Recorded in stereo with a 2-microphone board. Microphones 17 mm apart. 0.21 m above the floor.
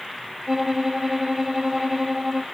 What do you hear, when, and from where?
0.5 s a violin: 25° right (ahead or behind), 0.8 m